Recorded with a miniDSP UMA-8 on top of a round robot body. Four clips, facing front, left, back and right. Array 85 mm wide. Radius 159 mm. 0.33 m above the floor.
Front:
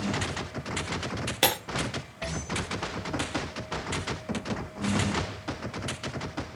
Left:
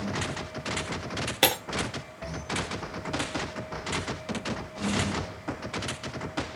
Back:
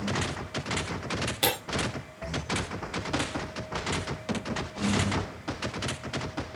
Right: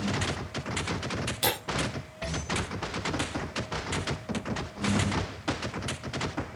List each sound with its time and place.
1.4 s breaking glass: 65° left, 4.5 m